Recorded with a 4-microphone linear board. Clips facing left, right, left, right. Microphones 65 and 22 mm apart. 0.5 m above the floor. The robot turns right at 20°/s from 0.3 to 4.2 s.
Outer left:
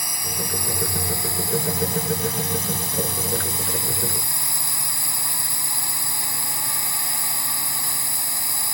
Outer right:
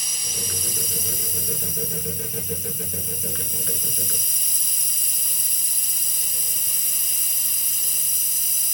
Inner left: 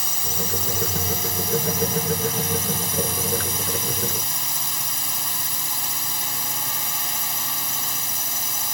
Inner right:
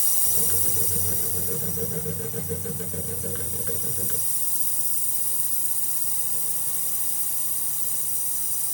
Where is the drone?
40° left; by 8.7 s 120° left.